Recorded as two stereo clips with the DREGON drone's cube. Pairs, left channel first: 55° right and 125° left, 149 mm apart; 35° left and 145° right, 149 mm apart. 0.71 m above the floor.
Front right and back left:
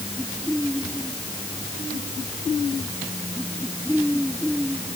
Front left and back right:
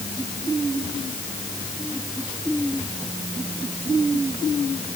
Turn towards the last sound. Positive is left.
No sound to turn to.